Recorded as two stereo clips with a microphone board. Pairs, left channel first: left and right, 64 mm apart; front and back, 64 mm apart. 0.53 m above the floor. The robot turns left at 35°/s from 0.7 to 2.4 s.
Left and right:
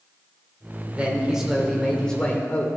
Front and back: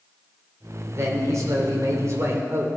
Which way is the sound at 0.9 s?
155° right.